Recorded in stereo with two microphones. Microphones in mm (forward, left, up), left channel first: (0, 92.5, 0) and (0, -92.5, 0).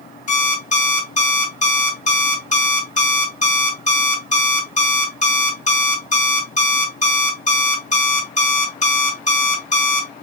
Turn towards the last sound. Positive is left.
turn(degrees=45)  # may be behind; listen again after turning